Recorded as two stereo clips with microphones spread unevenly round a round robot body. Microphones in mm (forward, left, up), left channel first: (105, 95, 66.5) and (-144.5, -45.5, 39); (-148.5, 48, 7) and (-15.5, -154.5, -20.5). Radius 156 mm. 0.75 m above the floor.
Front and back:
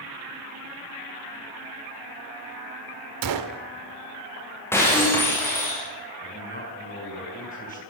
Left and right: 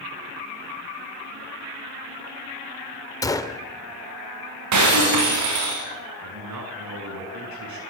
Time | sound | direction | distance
3.2 | a gunshot | 160° right | 1.6 m
4.7 | breaking glass | 55° right | 7 m
6.2 | a man speaking | 35° right | 7 m